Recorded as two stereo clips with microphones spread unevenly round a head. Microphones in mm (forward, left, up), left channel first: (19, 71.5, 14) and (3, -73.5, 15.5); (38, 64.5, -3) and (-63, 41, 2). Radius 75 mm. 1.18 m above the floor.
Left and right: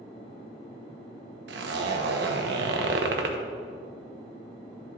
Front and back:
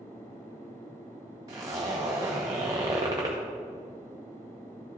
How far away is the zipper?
About 0.9 m.